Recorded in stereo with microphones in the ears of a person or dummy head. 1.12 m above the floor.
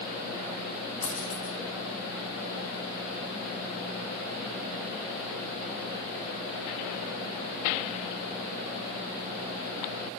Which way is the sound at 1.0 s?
30° left (ahead or behind).